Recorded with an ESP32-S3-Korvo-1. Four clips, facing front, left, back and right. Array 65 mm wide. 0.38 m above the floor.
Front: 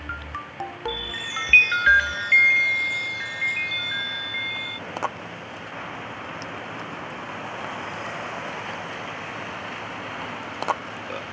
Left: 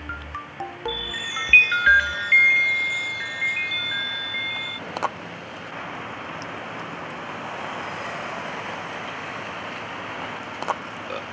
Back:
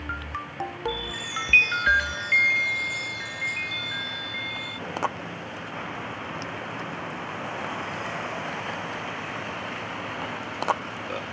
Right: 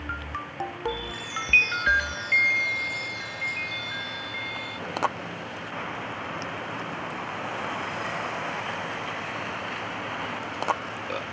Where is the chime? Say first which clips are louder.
Left 2 dB, even; 55° left.